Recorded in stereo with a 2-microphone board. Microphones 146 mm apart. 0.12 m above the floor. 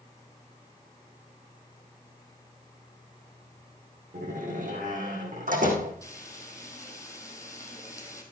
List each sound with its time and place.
4.1 s a door slam: 65° right (ahead or behind), 4 m
6.0 s frying: 20° left (ahead or behind), 3 m